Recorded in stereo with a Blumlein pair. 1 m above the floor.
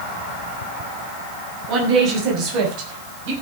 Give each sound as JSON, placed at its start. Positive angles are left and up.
{"t": 1.7, "sound": "a woman speaking", "azimuth_deg": -35, "distance_m": 7.0}